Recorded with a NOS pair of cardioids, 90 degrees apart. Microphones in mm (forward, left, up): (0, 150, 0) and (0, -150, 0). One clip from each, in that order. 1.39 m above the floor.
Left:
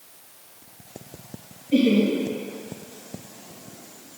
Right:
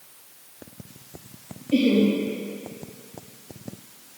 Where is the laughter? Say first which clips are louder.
Even; 15° left, 2.5 m.